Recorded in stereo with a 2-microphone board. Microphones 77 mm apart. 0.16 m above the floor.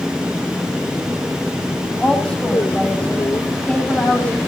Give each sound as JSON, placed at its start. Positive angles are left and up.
{"t": 2.0, "sound": "a woman speaking", "side_deg": 15, "distance_m": 7.5}